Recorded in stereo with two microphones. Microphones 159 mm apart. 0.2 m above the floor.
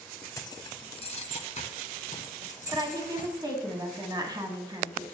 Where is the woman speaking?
30° right (ahead or behind), 1.8 m.